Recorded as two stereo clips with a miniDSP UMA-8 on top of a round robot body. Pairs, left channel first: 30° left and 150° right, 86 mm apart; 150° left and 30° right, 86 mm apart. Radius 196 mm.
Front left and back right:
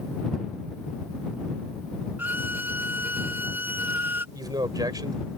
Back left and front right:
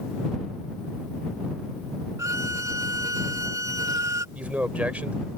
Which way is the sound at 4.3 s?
105° right.